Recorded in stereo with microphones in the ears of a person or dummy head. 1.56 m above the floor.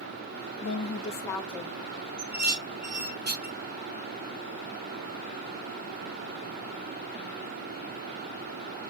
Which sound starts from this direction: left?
A woman speaking, at 0.6 s.